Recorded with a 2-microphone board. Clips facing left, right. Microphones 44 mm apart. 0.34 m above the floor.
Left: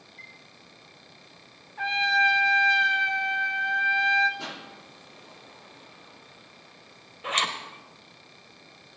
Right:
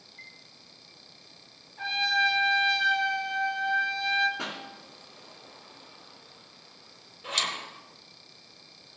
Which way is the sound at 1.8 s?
35° left (ahead or behind).